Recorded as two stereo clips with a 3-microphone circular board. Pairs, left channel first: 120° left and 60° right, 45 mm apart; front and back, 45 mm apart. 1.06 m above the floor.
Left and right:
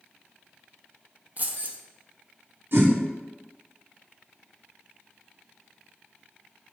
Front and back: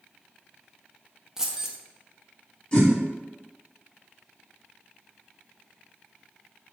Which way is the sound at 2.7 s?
60° right.